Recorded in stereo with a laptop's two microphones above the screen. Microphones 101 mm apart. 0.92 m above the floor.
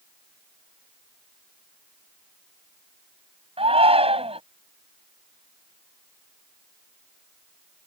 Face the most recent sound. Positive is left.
turn(degrees=-75)  # may be behind; listen again after turning